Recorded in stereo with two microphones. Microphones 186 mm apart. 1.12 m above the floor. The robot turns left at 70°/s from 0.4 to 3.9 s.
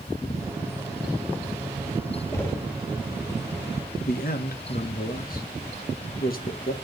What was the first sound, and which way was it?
Knocking, 20° left (ahead or behind).